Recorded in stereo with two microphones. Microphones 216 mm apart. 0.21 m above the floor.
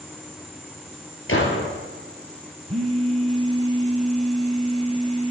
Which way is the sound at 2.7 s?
30° right (ahead or behind).